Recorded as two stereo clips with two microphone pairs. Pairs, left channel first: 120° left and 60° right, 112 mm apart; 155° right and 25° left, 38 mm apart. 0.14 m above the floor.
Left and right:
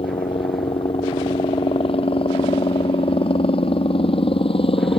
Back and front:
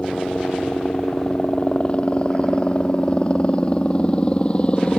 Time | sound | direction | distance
0.0 | a helicopter | 145° left | ?